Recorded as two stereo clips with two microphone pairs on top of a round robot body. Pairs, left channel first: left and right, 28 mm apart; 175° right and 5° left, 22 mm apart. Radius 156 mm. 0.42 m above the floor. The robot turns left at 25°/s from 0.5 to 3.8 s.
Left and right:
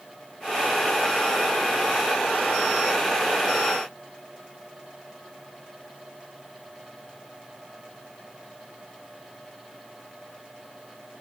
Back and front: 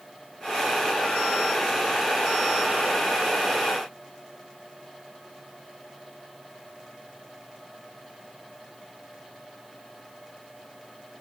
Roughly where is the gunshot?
I don't hear a gunshot.